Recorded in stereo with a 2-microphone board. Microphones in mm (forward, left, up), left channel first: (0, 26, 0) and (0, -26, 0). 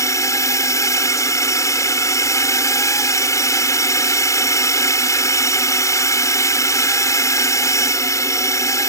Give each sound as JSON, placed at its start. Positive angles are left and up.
{"t": 0.0, "sound": "a drone", "side_deg": 70}